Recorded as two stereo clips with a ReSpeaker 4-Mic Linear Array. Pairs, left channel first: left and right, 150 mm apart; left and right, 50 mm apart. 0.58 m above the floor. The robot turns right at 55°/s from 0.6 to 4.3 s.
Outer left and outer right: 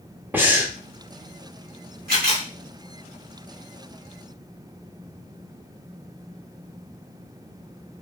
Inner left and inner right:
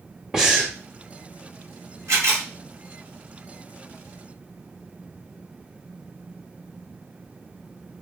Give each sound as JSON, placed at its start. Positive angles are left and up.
{"t": 0.3, "sound": "breathing", "side_deg": -10, "distance_m": 0.7}
{"t": 2.1, "sound": "a camera shutter", "side_deg": -85, "distance_m": 1.4}